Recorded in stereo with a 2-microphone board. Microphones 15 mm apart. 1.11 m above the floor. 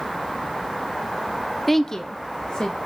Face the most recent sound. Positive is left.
turn(degrees=65)  # may be behind; listen again after turning